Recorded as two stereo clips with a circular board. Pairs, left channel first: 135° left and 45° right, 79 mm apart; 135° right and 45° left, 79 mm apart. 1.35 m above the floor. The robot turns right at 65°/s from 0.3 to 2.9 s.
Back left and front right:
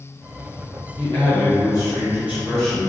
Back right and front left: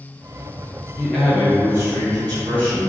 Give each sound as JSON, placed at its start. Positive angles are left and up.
{"t": 1.0, "sound": "a man speaking", "azimuth_deg": -60, "distance_m": 1.3}